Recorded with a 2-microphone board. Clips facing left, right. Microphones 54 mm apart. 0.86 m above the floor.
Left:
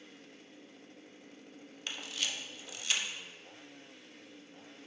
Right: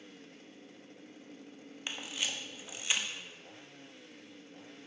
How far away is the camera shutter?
About 0.7 m.